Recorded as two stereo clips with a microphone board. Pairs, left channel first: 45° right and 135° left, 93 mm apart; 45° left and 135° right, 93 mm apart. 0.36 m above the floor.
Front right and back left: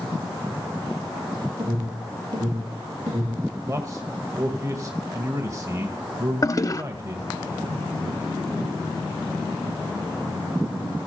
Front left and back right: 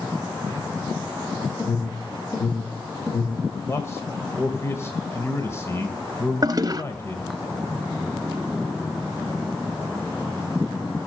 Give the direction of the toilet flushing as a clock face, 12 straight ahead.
3 o'clock.